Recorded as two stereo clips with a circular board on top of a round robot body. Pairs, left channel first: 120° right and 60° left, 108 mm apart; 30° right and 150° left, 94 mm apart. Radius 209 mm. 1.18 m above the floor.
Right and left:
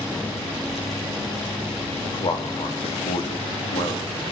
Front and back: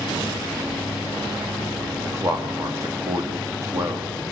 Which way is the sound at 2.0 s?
155° right.